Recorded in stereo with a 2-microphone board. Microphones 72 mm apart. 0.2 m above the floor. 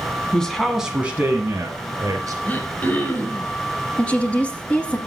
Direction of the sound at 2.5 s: 25° left (ahead or behind).